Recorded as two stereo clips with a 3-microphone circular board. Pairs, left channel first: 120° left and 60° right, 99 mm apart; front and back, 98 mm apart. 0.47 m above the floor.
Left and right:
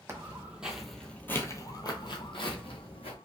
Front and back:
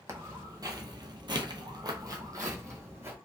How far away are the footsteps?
About 0.9 m.